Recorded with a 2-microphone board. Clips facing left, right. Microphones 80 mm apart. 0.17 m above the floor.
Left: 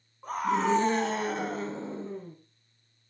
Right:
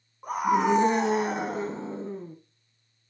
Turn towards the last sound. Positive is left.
turn(degrees=-15)  # may be behind; listen again after turning